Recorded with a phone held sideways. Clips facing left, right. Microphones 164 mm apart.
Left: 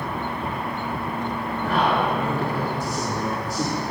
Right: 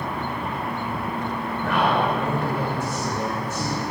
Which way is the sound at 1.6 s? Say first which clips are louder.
Even; 40° left (ahead or behind).